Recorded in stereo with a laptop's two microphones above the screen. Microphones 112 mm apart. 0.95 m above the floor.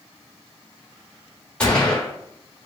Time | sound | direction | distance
1.6 | a gunshot | 10° left (ahead or behind) | 0.7 m